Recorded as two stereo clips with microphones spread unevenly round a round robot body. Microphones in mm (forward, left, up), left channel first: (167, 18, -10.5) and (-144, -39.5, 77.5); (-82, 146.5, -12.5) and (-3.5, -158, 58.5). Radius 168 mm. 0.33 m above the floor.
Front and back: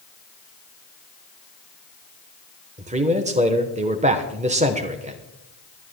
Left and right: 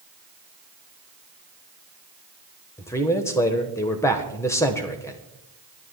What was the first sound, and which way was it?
A man speaking, 120° left.